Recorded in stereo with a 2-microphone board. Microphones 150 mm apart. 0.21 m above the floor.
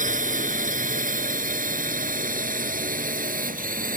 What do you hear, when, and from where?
0.0 s a drone: 60° right (ahead or behind); by 4.0 s 70° right (ahead or behind)